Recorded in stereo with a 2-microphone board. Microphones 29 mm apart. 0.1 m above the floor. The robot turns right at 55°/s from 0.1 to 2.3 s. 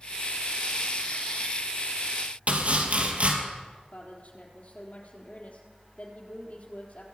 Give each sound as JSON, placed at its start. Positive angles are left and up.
{"t": 2.5, "sound": "chopping", "side_deg": -50, "distance_m": 2.5}
{"t": 3.9, "sound": "a woman speaking", "side_deg": 60, "distance_m": 3.5}